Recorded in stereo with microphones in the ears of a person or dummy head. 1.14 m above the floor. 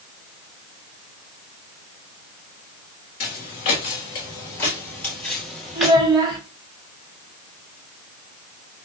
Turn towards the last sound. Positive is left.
turn(degrees=-25)  # may be behind; listen again after turning